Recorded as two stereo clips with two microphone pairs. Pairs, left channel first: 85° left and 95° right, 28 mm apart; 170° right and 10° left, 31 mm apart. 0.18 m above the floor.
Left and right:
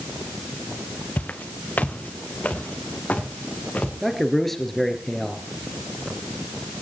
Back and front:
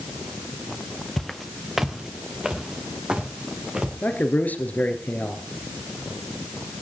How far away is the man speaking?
About 2.5 m.